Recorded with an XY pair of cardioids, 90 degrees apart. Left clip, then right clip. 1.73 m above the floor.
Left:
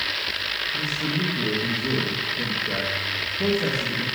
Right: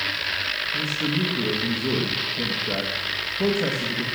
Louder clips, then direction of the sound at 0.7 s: Right 1 dB; 30° right.